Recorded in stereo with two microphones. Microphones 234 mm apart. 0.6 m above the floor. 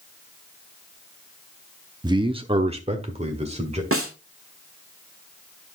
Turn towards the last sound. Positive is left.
turn(degrees=-60)  # may be behind; listen again after turning